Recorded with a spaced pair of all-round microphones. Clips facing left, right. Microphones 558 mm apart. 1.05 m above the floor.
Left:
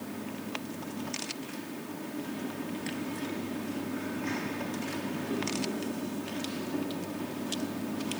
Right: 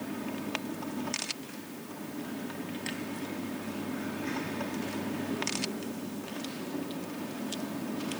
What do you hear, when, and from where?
Only background noise.